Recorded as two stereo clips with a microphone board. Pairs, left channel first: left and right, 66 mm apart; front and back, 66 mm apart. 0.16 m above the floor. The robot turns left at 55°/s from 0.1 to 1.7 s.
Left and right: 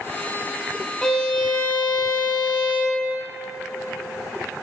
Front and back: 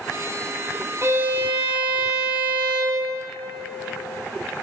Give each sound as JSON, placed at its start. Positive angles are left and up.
{"t": 1.0, "sound": "a violin", "azimuth_deg": 170, "distance_m": 0.8}